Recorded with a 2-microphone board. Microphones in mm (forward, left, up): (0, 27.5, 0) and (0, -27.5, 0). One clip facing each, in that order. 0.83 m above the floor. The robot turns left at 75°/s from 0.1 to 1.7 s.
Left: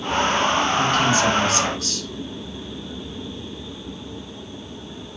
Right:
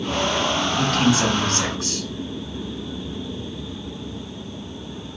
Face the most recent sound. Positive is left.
turn(degrees=-150)